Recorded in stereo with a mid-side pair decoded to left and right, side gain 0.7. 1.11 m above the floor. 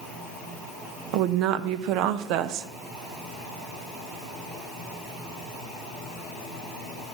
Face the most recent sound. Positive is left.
turn(degrees=-65)